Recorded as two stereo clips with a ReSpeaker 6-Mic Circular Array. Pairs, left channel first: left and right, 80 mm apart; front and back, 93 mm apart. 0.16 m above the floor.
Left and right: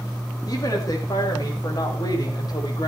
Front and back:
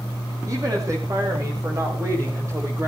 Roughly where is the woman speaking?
Behind left.